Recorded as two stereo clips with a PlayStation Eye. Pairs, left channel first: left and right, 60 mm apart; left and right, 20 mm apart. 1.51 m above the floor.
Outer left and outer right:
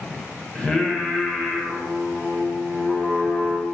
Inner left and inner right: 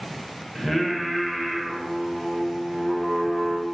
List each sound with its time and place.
0.6 s singing: 15° left (ahead or behind), 0.7 m